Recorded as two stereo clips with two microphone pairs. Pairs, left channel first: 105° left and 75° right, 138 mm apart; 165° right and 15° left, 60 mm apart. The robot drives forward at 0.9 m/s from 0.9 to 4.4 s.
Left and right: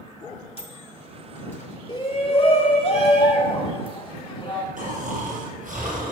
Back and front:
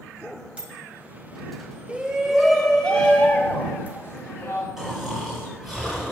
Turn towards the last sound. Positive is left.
turn(degrees=-70)